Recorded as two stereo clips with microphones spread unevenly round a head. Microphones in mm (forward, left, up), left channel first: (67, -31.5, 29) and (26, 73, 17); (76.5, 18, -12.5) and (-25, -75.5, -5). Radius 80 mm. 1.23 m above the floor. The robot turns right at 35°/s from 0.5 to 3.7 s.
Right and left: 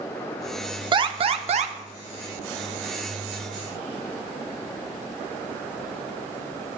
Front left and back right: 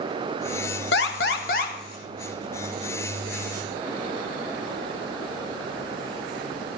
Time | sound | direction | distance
0.9 | an alarm | 60° left | 0.9 m